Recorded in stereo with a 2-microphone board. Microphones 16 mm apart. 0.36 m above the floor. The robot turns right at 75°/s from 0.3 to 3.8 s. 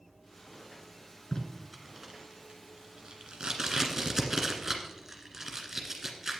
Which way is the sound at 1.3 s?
25° left (ahead or behind).